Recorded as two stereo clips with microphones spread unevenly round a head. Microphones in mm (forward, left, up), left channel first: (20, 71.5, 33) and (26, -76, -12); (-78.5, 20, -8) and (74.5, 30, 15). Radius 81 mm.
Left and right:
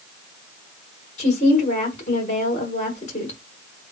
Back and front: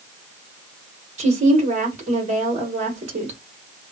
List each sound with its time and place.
1.2 s a woman speaking: 50° left, 1.6 m